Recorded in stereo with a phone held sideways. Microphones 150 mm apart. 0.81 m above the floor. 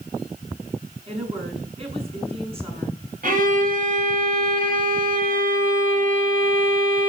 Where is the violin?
65° right (ahead or behind), 5.5 m.